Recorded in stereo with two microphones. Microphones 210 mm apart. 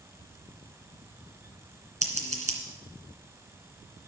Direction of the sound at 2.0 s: 30° right (ahead or behind).